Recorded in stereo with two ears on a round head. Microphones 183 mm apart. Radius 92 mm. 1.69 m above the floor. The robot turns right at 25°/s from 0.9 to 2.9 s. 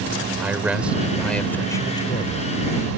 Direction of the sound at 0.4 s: 5° right.